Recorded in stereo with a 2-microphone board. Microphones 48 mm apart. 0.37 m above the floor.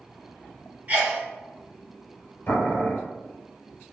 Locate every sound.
0.9 s a sneeze: 30° right (ahead or behind), 1.6 m
2.5 s boiling: 45° left (ahead or behind), 1.1 m